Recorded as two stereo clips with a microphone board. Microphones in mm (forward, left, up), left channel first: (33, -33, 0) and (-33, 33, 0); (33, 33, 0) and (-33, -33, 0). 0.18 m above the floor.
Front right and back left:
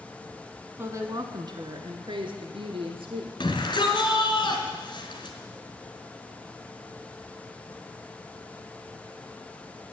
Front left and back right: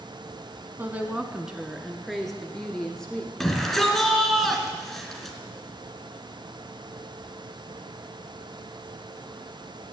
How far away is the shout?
About 2.5 m.